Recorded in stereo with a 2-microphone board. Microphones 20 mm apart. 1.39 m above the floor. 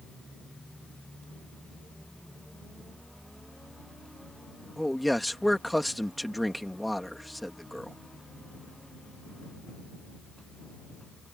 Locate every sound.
4.8 s a man speaking: 5° left (ahead or behind)